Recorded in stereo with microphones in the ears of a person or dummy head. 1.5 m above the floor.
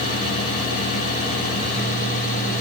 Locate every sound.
Only background noise.